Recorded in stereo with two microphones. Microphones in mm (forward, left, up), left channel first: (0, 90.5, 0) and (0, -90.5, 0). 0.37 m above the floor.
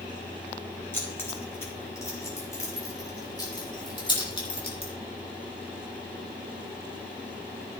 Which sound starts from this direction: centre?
Keys jangling, at 0.9 s.